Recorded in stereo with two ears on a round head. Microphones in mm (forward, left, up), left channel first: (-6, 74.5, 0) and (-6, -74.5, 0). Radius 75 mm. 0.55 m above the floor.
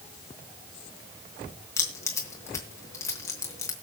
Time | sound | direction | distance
1.8 | keys jangling | 15° left (ahead or behind) | 3.5 m